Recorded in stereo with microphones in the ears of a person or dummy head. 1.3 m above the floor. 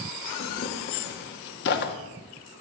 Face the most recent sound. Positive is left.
turn(degrees=55)  # may be behind; listen again after turning